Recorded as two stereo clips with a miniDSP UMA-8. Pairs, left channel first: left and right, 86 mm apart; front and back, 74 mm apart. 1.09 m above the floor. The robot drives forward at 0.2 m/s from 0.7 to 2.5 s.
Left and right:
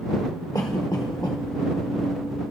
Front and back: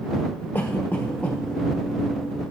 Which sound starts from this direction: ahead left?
A cough, at 0.6 s.